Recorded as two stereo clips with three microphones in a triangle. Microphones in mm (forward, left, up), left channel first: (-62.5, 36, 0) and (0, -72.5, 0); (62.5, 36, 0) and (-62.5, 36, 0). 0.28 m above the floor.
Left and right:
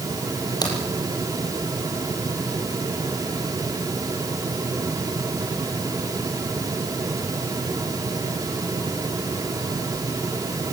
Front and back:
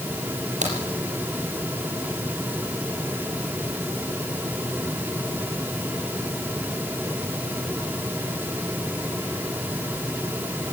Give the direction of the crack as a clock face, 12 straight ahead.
6 o'clock.